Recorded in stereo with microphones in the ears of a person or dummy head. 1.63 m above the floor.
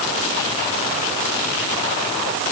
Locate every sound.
Only background noise.